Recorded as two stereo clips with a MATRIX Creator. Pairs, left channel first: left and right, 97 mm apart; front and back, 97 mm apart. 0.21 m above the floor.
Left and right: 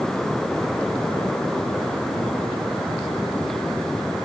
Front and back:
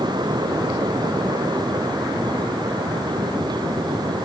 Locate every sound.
Only background noise.